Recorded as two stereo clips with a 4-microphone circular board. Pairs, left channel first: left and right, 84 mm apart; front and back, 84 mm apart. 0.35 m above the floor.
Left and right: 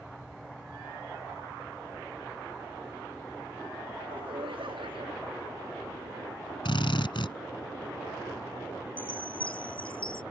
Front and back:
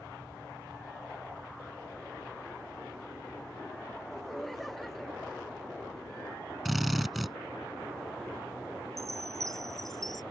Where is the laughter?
90° right.